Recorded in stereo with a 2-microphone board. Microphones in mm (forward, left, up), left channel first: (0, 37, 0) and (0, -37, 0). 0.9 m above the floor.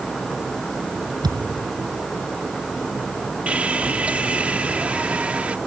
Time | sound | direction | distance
1.2 | a thud | 75° right (ahead or behind) | ?
3.5 | sawing | 20° right (ahead or behind) | ?